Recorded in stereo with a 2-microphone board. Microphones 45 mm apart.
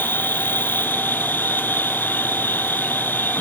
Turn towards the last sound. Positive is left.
turn(degrees=50)  # may be behind; listen again after turning